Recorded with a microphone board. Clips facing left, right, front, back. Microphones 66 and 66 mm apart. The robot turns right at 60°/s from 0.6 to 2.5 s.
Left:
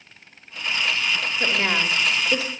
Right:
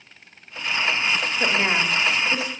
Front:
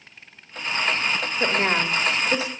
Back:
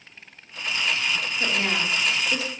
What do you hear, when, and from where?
1.4 s a woman speaking: 20° right, 1.4 m; by 2.5 s 50° left, 1.4 m